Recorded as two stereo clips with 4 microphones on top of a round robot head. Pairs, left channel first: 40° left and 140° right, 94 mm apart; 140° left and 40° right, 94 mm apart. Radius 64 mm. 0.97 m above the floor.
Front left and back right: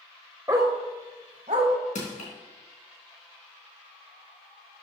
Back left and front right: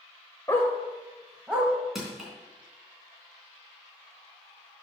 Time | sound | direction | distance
0.5 | a dog barking | straight behind | 0.7 m
1.9 | crushing | 50° left | 3 m